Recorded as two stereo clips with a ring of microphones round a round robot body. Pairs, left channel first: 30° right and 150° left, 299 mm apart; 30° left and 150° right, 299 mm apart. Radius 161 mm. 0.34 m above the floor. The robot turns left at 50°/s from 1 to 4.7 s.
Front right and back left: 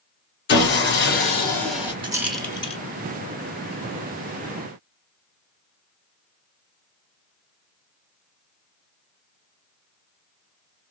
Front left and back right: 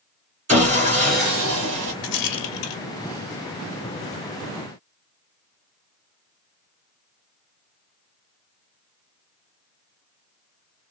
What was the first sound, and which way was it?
Sawing, 85° right.